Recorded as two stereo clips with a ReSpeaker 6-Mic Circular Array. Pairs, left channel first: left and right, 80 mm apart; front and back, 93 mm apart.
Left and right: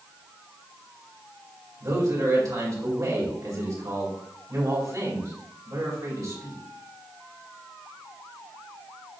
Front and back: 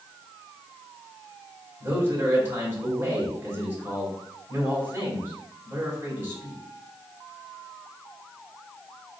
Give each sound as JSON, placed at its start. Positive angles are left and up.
{"t": 1.8, "sound": "a man speaking", "azimuth_deg": -120, "distance_m": 2.5}